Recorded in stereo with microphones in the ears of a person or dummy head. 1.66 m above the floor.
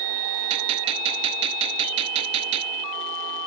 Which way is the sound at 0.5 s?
30° right (ahead or behind).